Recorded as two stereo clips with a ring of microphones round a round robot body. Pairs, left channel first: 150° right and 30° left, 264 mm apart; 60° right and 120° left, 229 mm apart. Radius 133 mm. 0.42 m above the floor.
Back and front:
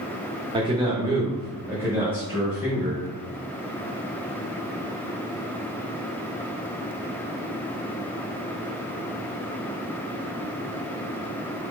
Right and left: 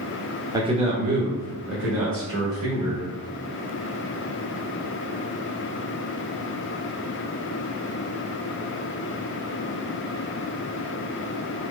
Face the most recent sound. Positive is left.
turn(degrees=115)